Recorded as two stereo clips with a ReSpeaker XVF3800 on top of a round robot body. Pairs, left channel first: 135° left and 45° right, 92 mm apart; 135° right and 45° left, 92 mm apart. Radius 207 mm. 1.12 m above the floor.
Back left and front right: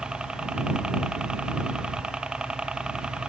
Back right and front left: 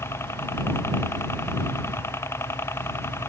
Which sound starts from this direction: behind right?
A helicopter, at 0.0 s.